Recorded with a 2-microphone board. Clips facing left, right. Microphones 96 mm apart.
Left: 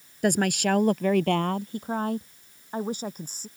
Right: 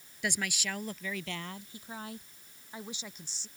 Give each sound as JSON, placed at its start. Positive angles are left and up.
{"t": 0.2, "sound": "a woman speaking", "side_deg": 50}